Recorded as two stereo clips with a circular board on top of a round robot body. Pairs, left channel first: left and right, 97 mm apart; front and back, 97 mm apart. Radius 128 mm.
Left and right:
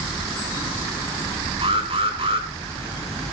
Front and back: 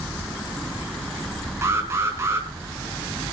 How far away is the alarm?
About 3.5 m.